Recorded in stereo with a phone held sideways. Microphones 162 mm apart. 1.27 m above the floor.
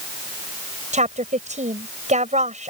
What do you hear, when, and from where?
0.9 s a woman speaking: 45° right (ahead or behind)